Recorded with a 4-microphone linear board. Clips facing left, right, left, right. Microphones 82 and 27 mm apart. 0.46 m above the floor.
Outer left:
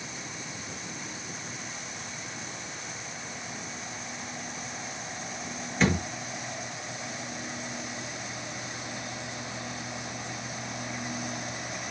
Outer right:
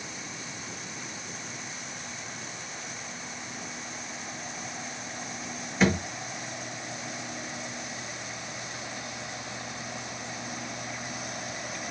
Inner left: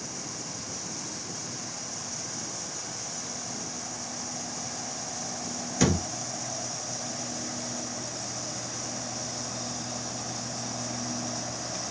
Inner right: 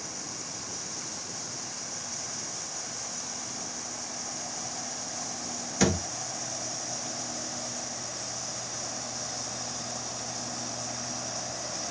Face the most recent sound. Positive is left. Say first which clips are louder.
# outer right 1 dB, inner left 1 dB
turn(degrees=-5)  # may be behind; listen again after turning